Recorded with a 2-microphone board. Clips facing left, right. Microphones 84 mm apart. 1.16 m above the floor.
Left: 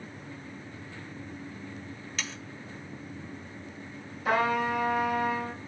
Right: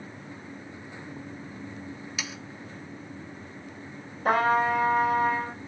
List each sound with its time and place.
2.2 s sawing: 10° right (ahead or behind), 0.6 m
4.2 s a trumpet: 50° right (ahead or behind), 4 m